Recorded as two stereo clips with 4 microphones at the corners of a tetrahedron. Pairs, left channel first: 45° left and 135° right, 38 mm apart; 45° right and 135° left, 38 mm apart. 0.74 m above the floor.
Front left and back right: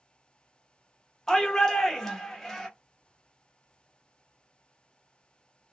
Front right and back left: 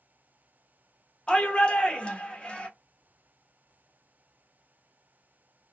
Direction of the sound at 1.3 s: 25° right.